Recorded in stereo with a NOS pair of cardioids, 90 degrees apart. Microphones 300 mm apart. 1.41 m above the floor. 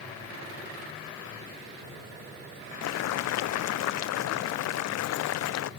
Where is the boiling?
65° left, 0.5 m.